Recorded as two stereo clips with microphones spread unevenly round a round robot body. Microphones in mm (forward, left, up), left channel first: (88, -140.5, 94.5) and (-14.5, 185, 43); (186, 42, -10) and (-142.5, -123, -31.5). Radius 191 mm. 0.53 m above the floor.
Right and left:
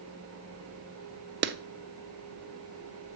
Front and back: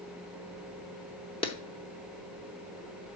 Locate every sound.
1.4 s a clap: 100° left, 0.7 m